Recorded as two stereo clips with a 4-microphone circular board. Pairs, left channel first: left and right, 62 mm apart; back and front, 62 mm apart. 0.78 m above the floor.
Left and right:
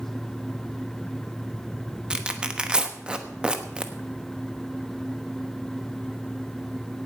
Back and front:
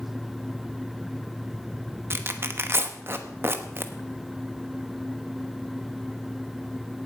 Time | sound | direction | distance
2.1 | tearing paper | 20° right | 1.1 m